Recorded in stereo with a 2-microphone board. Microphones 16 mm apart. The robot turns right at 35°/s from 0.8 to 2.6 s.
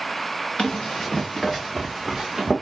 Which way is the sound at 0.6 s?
60° left (ahead or behind).